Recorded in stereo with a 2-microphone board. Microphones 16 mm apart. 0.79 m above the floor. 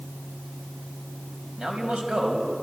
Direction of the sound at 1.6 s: 75° right (ahead or behind).